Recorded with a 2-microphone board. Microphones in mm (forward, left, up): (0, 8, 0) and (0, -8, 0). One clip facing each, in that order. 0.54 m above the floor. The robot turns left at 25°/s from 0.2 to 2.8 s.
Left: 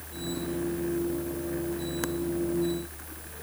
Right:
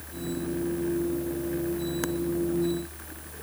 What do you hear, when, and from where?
Only background noise.